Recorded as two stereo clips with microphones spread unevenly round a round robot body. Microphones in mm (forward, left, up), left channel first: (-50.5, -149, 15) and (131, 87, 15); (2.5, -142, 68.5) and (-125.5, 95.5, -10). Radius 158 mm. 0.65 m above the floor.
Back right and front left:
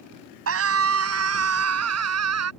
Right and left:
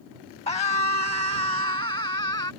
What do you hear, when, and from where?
0.5 s a scream: 10° left; by 2.5 s 15° left